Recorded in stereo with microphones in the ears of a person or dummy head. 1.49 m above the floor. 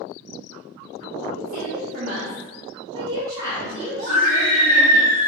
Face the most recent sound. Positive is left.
turn(degrees=-45)  # may be behind; listen again after turning